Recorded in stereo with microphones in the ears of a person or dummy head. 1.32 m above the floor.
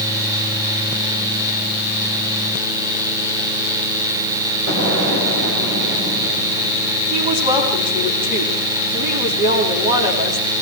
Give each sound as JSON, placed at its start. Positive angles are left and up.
{"t": 4.7, "sound": "an explosion", "side_deg": -75, "distance_m": 9.5}
{"t": 7.1, "sound": "a woman speaking", "side_deg": -25, "distance_m": 8.5}